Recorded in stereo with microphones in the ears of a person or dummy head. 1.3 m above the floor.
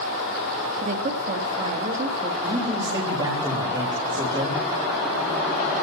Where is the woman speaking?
40° right (ahead or behind), 1.6 m.